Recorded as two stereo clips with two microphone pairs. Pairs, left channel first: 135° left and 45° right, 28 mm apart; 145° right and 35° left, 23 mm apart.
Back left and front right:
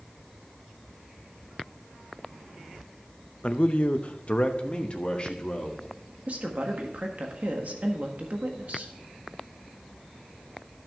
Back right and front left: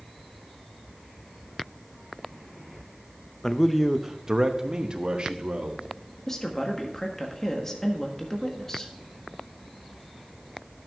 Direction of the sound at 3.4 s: 160° left.